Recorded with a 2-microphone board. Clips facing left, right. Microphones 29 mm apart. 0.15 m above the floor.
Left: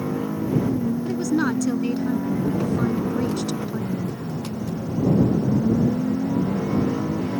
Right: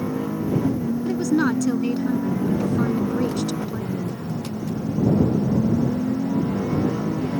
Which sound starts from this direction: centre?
A woman speaking, at 1.1 s.